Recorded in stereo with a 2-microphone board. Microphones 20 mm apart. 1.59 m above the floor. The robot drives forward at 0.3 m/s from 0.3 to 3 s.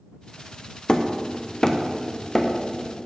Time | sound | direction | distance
0.9 | hammering | 40° left (ahead or behind) | 0.7 m